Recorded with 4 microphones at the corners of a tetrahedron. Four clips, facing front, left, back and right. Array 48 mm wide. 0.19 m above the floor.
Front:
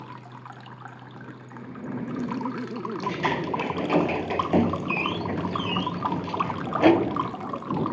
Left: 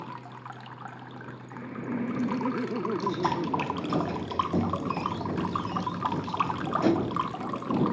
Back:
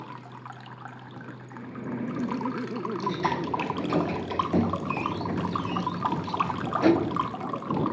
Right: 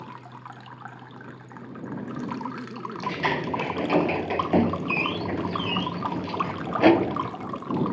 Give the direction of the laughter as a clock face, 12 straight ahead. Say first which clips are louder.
Left 3 dB, even; 9 o'clock.